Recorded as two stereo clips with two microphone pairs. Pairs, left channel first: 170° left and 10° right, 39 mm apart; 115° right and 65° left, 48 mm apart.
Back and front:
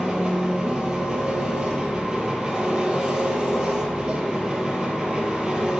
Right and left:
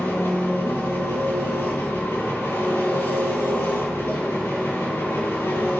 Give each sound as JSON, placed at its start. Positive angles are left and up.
{"t": 0.0, "sound": "an engine running", "azimuth_deg": -85, "distance_m": 6.5}